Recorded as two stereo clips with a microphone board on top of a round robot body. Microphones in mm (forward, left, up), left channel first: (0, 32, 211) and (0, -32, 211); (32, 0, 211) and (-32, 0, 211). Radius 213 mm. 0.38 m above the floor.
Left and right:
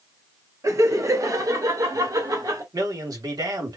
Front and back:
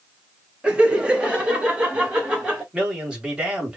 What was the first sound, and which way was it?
Laughter, 110° right.